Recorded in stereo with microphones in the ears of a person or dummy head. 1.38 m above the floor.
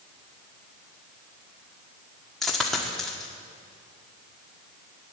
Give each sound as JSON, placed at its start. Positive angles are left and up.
{"t": 2.4, "sound": "a dropped coin", "side_deg": 0, "distance_m": 1.6}